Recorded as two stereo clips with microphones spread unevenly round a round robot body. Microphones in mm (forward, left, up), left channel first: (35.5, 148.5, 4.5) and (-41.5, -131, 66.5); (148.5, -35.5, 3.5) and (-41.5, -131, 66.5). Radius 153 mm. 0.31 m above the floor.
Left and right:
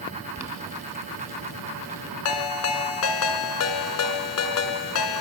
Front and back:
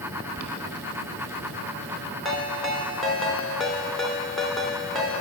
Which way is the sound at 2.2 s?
115° left.